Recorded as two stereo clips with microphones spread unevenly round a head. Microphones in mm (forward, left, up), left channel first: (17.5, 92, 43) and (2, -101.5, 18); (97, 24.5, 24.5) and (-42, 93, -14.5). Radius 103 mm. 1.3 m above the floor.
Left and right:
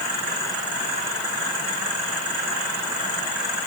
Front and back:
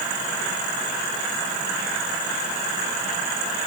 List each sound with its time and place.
Only background noise.